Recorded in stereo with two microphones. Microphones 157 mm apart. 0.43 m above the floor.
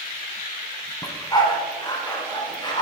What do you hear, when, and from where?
1.0 s a dog barking: 25° left (ahead or behind), 1.4 m